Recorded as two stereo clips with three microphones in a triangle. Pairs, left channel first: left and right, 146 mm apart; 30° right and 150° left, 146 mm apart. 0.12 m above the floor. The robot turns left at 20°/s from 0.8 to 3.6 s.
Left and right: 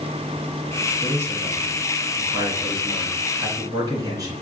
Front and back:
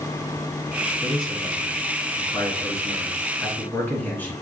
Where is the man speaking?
35° right, 1.2 m; by 4.3 s 90° right, 1.2 m.